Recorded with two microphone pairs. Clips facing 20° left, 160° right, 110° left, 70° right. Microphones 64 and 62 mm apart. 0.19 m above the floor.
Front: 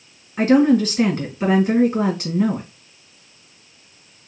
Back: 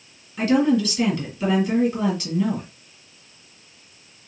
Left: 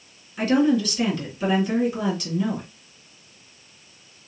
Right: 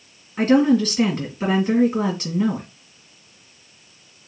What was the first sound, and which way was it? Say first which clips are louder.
A woman speaking: front 4 dB, right 4 dB; 15° right.